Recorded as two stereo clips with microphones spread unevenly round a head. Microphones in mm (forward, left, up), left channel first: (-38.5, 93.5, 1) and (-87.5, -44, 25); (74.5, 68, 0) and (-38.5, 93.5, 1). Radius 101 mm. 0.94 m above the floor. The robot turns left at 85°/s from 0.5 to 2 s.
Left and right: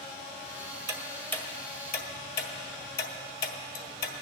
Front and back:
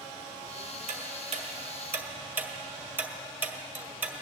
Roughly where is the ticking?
Behind.